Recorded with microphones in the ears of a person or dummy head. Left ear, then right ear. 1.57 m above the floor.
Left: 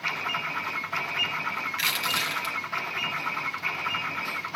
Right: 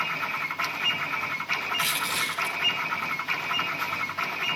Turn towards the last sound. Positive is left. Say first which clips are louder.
# left 1 dB
turn(degrees=20)  # may be behind; listen again after turning